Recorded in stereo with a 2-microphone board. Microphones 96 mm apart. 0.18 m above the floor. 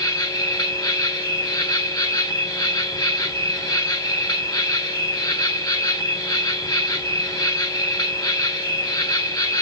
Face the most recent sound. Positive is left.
turn(degrees=40)  # may be behind; listen again after turning